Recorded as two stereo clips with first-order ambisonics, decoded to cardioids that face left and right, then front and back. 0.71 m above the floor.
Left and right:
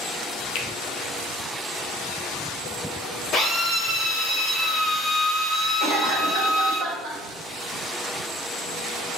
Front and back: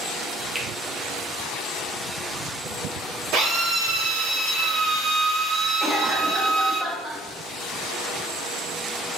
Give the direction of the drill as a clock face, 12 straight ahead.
7 o'clock.